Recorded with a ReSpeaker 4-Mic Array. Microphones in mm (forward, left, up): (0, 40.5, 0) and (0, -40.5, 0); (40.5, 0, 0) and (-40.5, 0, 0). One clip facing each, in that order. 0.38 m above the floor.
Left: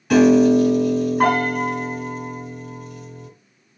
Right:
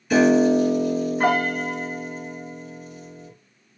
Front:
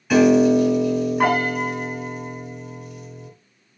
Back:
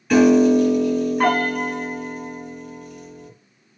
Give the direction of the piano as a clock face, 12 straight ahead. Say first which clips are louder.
Left 3 dB, back 1 dB; 9 o'clock.